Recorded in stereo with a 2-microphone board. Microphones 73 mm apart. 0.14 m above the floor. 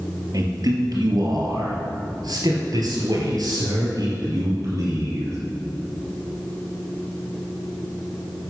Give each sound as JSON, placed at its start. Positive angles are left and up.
{"t": 0.3, "sound": "a man speaking", "side_deg": -55, "distance_m": 3.0}